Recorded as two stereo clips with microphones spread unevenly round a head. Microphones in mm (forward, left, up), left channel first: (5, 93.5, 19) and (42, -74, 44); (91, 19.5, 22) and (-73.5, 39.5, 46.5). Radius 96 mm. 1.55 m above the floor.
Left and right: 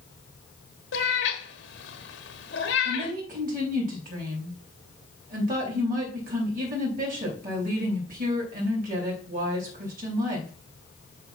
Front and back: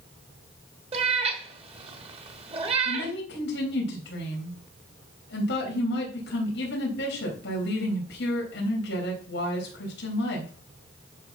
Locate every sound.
0.9 s a cat meowing: 130° left, 1.4 m
2.9 s a woman speaking: 40° right, 3.5 m